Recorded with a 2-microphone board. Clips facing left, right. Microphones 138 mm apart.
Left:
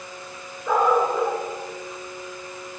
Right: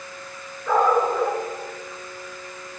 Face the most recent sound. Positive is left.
turn(degrees=5)  # may be behind; listen again after turning